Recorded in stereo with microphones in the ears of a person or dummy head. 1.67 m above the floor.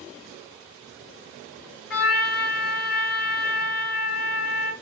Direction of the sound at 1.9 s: 50° left (ahead or behind).